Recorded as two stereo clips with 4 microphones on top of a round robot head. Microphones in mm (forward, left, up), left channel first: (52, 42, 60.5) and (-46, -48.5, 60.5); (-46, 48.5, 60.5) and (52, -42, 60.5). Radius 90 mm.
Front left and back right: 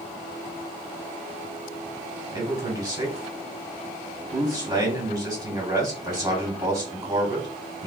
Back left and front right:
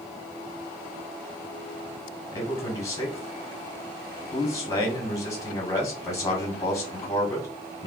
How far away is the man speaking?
About 1.6 m.